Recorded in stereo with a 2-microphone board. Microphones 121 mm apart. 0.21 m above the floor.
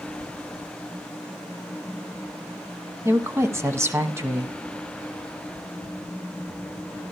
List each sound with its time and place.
3.0 s a woman speaking: 20° right (ahead or behind), 1.4 m